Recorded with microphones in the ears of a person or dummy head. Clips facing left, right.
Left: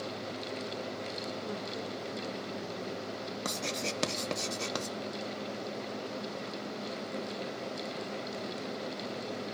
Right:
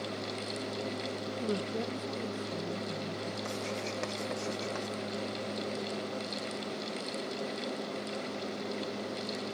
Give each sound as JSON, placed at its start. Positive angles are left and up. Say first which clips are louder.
{"t": 1.4, "sound": "a woman speaking", "louder": "right 5 dB", "side_deg": -40, "distance_m": 0.5}
{"t": 3.5, "sound": "writing", "louder": "even", "side_deg": 50, "distance_m": 1.2}